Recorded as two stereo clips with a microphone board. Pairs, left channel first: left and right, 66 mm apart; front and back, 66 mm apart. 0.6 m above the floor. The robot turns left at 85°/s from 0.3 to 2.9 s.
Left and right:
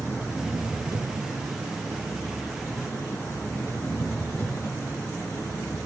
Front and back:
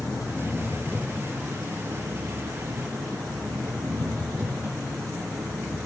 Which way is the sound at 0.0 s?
10° right.